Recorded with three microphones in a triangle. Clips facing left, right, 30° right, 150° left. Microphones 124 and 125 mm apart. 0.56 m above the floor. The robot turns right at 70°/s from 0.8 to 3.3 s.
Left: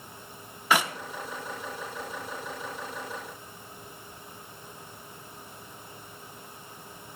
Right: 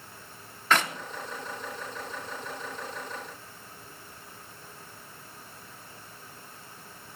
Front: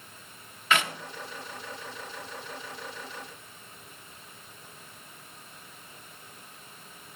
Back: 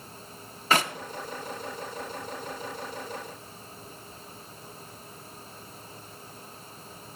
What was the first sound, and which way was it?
A clap, 165° left.